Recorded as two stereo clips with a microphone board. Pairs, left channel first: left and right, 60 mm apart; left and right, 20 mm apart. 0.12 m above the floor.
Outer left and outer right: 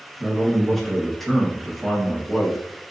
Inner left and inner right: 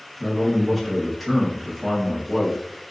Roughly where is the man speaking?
Centre.